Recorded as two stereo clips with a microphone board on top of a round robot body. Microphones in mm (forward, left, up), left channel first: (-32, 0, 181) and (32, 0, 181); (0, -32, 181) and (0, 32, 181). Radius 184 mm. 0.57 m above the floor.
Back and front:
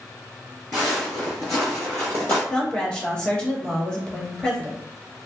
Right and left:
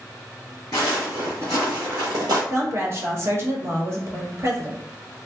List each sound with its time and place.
0.7 s footsteps: 130° right, 0.5 m; by 2.4 s 115° left, 1.1 m
2.5 s a woman speaking: 110° left, 1.4 m